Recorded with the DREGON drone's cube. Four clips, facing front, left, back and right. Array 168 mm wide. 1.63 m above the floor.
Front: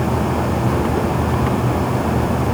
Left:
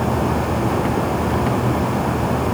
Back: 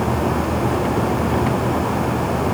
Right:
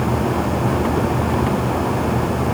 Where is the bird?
I don't hear a bird.